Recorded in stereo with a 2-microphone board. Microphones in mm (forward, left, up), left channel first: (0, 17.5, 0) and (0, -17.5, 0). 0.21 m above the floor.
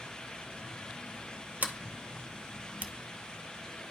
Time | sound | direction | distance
1.6 | a sliding door | 55° right (ahead or behind) | 0.8 m